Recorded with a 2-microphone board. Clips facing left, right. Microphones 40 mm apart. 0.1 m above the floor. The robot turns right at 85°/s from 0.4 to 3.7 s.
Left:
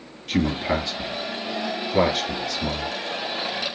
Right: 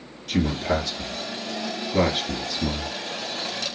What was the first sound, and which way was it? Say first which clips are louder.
A man speaking: left 1 dB; 15° left (ahead or behind).